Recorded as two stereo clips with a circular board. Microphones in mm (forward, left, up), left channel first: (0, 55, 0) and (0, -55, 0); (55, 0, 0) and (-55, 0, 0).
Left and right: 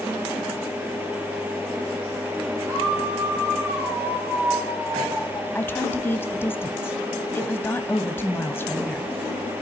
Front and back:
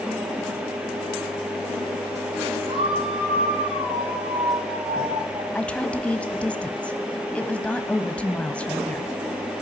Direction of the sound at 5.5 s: 60° left.